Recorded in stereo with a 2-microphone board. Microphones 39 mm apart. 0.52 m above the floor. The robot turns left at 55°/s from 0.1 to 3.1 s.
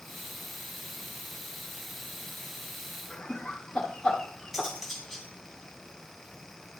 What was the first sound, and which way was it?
Laughter, 20° left (ahead or behind).